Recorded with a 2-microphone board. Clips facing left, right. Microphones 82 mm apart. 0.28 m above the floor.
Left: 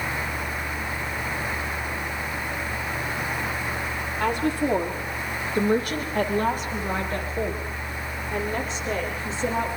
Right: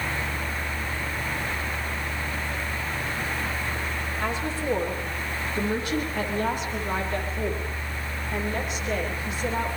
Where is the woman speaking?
55° left (ahead or behind), 9.5 m; by 9.8 s 30° left (ahead or behind), 16 m.